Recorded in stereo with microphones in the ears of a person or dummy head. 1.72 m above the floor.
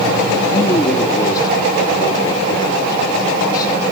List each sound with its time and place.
0.5 s a man speaking: 25° left (ahead or behind), 3 m; by 3.8 s 30° left (ahead or behind), 7 m